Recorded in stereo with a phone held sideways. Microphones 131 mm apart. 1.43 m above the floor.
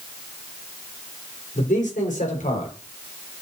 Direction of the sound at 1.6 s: 70° left (ahead or behind).